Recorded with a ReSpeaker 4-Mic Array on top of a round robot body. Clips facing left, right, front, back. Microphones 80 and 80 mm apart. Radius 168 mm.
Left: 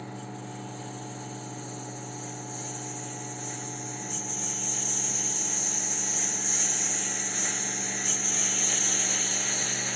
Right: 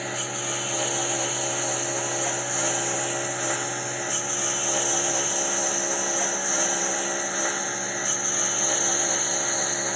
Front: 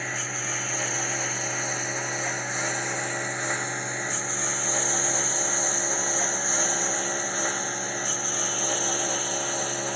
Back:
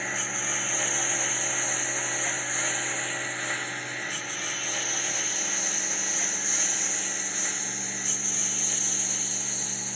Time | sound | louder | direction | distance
0.0 | a lawn mower | right 8 dB, even | 90° right | ?